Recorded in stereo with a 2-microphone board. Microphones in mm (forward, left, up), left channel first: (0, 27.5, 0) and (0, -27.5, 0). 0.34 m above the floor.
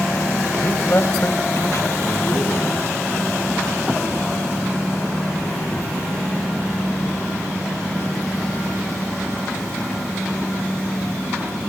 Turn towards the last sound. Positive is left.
turn(degrees=60)  # may be behind; listen again after turning